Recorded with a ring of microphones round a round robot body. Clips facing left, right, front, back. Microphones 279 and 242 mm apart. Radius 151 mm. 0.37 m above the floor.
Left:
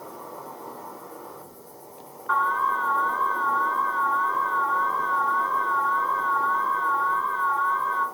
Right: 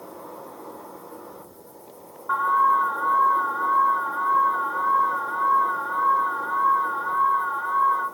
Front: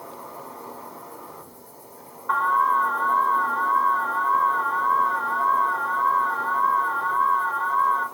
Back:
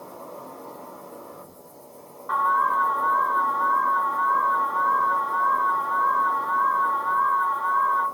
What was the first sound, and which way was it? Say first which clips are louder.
An insect: right 1 dB, back 1 dB; 5° left.